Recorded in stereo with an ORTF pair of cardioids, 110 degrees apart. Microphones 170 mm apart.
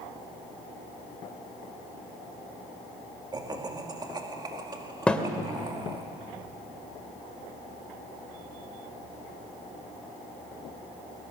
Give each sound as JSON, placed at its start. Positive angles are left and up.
{"t": 3.3, "sound": "laughter", "azimuth_deg": -25, "distance_m": 2.5}
{"t": 5.1, "sound": "a thud", "azimuth_deg": 5, "distance_m": 2.0}